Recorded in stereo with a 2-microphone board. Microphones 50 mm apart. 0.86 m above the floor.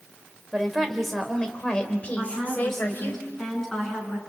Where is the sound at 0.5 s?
5° right (ahead or behind), 3 m; by 3.2 s 40° left (ahead or behind), 4 m.